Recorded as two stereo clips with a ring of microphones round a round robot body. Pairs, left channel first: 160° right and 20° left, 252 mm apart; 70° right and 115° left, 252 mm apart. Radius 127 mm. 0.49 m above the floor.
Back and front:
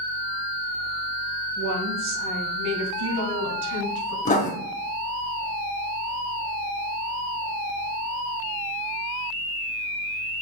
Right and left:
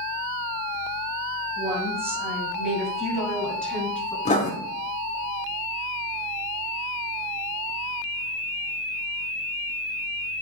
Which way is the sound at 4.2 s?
115° right.